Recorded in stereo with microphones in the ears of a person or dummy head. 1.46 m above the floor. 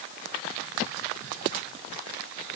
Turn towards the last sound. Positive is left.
No sound to turn to.